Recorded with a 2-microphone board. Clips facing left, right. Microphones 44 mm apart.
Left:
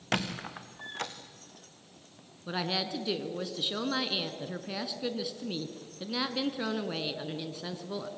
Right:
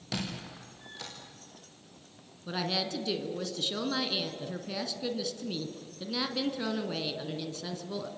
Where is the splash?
No splash in this recording.